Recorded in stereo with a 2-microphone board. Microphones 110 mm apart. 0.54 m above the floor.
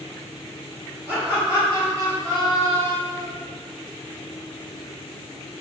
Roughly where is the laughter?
Centre.